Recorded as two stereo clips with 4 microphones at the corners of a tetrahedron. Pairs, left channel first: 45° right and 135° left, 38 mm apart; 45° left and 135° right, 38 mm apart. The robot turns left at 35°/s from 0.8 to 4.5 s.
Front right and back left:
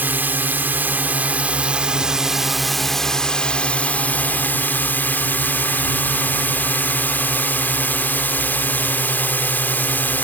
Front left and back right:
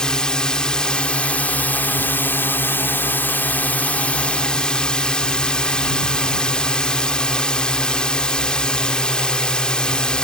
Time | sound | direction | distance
0.0 | a drone | 110° left | ?